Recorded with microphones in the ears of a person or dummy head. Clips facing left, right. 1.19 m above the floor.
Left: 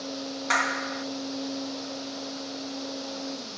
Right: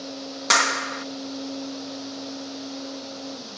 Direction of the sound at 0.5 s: 65° right (ahead or behind).